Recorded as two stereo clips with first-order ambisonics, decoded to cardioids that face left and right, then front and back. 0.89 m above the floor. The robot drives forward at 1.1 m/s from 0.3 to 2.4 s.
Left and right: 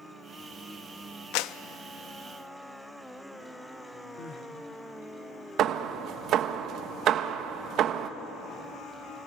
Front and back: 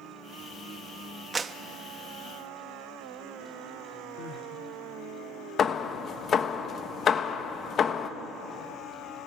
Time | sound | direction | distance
1.3 | a clap | 105° left | 0.6 m
4.2 | crying | 40° left | 1.4 m
5.6 | hammering | 55° right | 0.8 m